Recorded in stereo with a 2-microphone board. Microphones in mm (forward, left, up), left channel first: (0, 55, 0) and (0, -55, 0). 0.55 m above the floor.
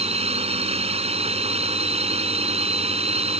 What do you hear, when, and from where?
0.0 s a drone: 75° right (ahead or behind)